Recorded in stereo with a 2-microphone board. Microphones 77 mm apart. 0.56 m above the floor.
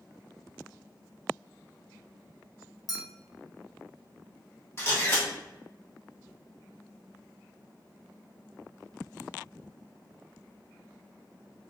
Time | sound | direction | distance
2.9 | a clink | 50° left (ahead or behind) | 0.7 m
4.8 | a camera shutter | 35° left (ahead or behind) | 1.3 m